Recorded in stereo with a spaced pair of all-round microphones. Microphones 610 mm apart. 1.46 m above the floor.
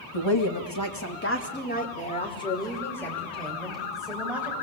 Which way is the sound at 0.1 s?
50° left (ahead or behind).